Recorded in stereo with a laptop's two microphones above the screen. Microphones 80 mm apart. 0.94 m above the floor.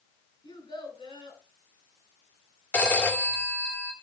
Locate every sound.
0.4 s a child speaking: 80° left, 7.5 m
2.7 s a phone ringing: 20° left (ahead or behind), 1.8 m